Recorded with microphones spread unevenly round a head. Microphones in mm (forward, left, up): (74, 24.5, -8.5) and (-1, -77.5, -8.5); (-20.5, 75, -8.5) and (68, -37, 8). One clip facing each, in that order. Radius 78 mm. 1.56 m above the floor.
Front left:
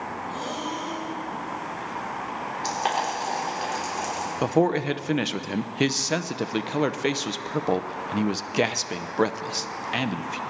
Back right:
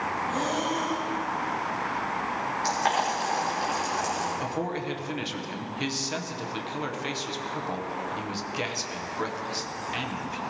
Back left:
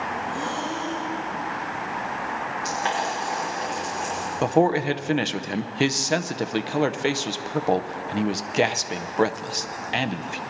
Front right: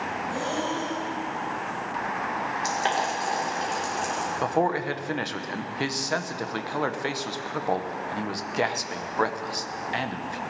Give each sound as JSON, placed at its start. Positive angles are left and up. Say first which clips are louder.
{"t": 0.3, "sound": "breathing", "louder": "back right 4 dB, even", "azimuth_deg": -80, "distance_m": 4.0}
{"t": 2.6, "sound": "boiling", "louder": "even, even", "azimuth_deg": -15, "distance_m": 5.0}
{"t": 4.4, "sound": "a man speaking", "louder": "front left 9 dB, back left 6 dB", "azimuth_deg": 65, "distance_m": 0.7}